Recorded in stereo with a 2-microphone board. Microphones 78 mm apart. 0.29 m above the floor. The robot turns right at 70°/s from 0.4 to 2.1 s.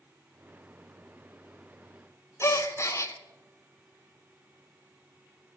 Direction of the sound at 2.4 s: 35° left (ahead or behind).